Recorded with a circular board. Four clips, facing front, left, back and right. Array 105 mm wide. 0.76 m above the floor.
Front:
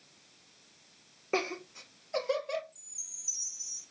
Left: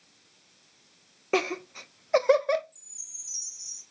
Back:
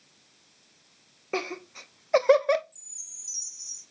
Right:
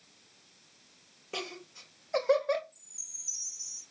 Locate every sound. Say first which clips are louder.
1.3 s laughter: left 13 dB, back 1 dB; 90° left, 0.7 m; by 2.6 s 160° left, 1.0 m
2.7 s a chime: even, even; 125° left, 2.5 m